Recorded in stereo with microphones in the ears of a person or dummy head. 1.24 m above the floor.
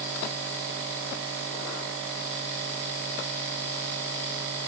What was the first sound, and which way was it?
Only background noise.